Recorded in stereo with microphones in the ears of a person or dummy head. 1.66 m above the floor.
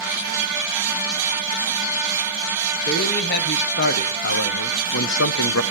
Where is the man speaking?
50° left (ahead or behind), 1.9 m; by 5.6 s 85° left, 0.7 m.